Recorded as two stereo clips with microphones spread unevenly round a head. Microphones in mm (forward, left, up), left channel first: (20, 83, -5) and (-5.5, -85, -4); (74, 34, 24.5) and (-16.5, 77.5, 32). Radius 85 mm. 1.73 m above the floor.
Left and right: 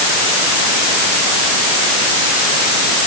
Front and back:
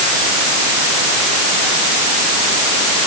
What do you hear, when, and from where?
Only background noise.